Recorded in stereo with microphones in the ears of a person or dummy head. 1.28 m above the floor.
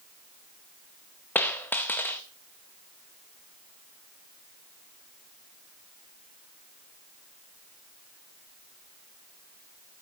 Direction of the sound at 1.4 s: 5° left (ahead or behind).